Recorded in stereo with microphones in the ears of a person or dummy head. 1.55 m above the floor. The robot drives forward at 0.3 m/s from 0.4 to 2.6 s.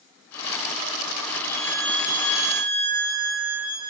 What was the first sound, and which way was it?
A violin, 15° left (ahead or behind).